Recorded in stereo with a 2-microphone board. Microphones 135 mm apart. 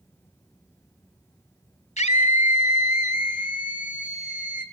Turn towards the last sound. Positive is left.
turn(degrees=80)